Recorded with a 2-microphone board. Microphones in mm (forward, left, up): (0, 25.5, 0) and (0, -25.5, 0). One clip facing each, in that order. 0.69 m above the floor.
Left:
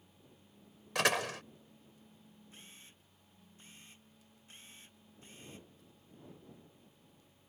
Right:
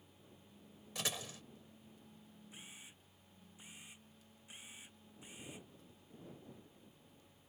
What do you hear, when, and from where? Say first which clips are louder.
0.9 s a door slam: left 12 dB; 75° left (ahead or behind)
2.5 s a camera shutter: right 2 dB; 10° right (ahead or behind)